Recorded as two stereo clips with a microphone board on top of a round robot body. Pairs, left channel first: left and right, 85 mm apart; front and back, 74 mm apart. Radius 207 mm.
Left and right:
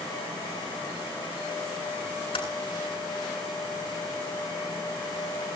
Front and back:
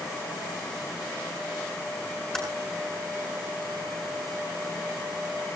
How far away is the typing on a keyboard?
About 8.5 m.